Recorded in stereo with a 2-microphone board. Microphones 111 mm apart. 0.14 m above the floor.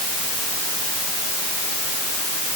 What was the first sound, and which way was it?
Only background noise.